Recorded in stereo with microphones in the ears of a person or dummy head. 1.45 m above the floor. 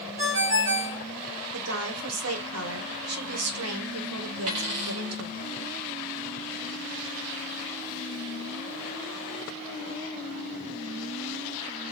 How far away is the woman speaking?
About 1.2 m.